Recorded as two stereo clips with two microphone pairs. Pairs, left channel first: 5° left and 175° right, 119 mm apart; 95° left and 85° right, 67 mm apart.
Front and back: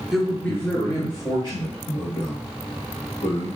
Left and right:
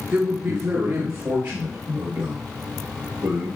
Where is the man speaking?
95° right, 1.2 m; by 3.5 s 35° right, 5 m.